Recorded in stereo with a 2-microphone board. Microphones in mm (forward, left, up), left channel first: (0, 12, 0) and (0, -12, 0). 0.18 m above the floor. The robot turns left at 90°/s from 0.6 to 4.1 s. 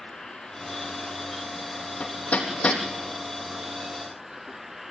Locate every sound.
0.0 s an insect: 145° left, 1.0 m; by 4.9 s 170° right, 1.0 m
2.0 s hammering: 75° left (ahead or behind), 3.5 m; by 2.8 s 30° left (ahead or behind), 3.5 m